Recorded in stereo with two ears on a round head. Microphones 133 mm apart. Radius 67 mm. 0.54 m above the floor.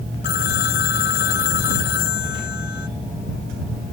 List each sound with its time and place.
0.2 s a phone ringing: 80° left